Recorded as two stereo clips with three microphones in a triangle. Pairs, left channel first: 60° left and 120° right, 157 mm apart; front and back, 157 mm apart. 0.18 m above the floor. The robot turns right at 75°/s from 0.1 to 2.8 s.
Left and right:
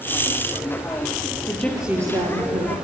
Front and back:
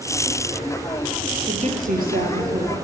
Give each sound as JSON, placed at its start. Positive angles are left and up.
{"t": 1.5, "sound": "a woman speaking", "azimuth_deg": 130, "distance_m": 4.5}